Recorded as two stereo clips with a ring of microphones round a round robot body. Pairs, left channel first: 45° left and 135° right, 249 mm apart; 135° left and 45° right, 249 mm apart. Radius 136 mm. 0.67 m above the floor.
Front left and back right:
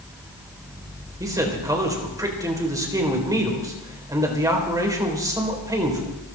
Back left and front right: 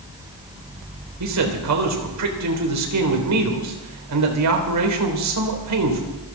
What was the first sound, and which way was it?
A man speaking, 55° right.